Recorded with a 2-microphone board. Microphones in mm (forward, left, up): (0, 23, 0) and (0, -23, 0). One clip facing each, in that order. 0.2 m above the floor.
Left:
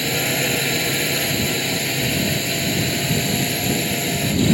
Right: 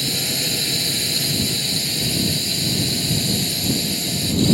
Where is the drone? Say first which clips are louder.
Left 4 dB; 35° left (ahead or behind).